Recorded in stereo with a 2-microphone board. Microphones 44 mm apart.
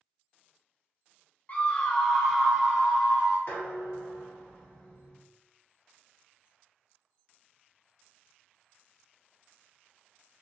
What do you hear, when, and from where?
1.5 s a scream: 40° left (ahead or behind), 0.6 m; by 3.4 s 30° right (ahead or behind), 1.0 m
3.5 s dishes clattering: 65° left (ahead or behind), 1.2 m